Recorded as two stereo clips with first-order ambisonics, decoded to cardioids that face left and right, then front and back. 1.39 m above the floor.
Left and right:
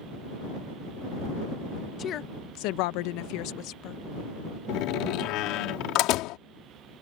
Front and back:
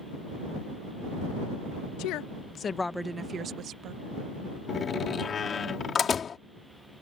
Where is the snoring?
No snoring in this recording.